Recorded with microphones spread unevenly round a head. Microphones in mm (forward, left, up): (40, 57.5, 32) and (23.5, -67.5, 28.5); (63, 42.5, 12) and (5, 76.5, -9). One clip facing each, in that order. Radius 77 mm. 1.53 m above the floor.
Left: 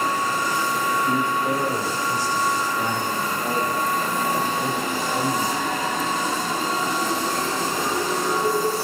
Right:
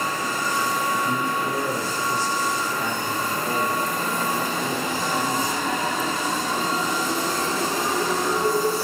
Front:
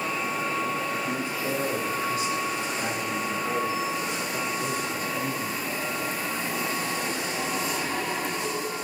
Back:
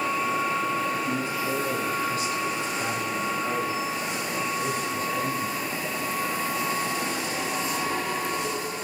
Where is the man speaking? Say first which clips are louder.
Left 3 dB, back 1 dB; 30° left, 6.5 m; by 5.6 s 55° left, 9 m.